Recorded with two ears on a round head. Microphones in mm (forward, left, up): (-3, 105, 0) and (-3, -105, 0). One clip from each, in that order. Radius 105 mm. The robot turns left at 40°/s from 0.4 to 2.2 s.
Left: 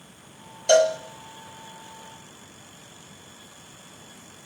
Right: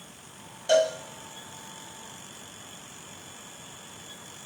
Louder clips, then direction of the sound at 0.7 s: Left 4 dB; 15° left (ahead or behind).